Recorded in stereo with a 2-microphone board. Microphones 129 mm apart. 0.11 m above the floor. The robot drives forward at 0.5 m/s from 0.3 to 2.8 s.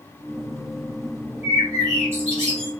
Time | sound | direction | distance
1.4 | a bird | 25° right (ahead or behind) | 1.2 m